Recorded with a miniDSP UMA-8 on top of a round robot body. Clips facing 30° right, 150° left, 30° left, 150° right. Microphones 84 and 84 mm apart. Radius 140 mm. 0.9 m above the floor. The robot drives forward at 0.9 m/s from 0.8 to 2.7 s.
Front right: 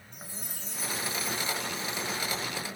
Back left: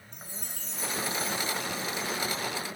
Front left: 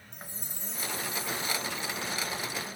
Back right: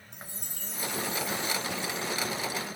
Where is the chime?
115° right, 6 m; by 2.5 s 130° right, 6.5 m.